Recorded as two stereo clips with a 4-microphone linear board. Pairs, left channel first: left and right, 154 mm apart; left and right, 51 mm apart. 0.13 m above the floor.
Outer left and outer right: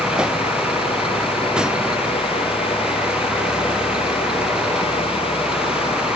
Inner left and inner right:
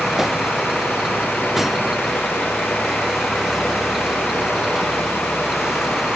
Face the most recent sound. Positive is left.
turn(degrees=-5)  # may be behind; listen again after turning